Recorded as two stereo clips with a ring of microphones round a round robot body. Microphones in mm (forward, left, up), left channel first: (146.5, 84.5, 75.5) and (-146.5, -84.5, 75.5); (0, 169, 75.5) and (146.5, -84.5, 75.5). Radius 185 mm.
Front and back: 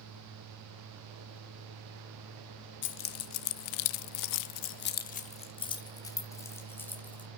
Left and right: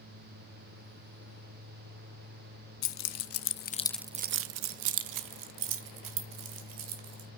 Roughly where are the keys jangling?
Left.